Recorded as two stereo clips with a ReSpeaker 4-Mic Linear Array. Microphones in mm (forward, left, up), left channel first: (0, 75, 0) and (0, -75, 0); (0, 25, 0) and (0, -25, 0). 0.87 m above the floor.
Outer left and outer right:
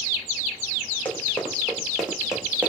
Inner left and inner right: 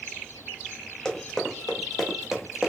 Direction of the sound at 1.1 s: 10° left (ahead or behind).